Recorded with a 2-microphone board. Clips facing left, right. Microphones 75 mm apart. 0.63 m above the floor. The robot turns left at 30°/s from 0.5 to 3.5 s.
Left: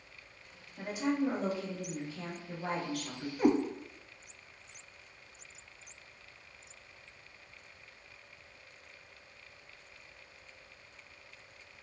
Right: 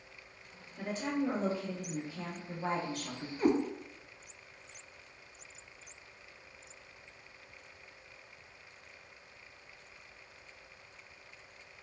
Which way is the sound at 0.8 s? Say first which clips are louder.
Left 2 dB; 20° left.